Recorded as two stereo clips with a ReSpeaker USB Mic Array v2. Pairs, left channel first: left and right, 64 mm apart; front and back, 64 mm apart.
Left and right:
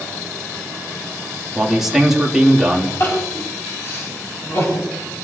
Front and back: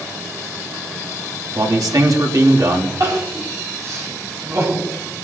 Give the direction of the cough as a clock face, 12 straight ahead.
I don't hear a cough.